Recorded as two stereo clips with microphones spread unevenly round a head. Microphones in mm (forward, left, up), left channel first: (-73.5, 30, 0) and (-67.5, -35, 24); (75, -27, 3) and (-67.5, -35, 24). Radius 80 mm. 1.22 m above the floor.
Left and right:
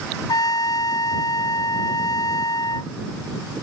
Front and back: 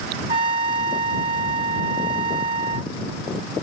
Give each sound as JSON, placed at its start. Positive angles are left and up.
{"t": 0.3, "sound": "a trumpet", "azimuth_deg": 125}